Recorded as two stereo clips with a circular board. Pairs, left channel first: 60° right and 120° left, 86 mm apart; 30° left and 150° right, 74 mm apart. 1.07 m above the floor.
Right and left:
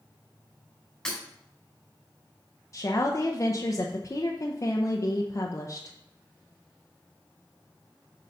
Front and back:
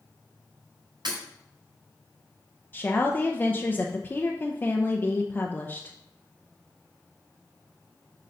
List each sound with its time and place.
1.1 s breaking glass: 140° right, 4.5 m
2.7 s a woman speaking: 25° right, 0.8 m